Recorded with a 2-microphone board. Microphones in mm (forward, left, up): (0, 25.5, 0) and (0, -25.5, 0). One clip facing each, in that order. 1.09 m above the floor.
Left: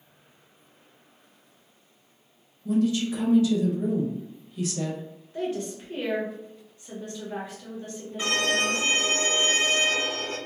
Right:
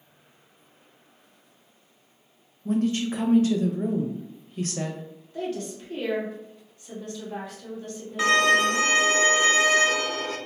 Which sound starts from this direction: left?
A woman speaking, at 5.3 s.